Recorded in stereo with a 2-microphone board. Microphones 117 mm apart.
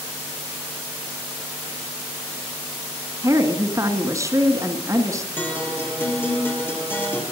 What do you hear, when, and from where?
3.2 s a woman speaking: 30° right (ahead or behind), 1.4 m
5.4 s a guitar: 15° left (ahead or behind), 3.5 m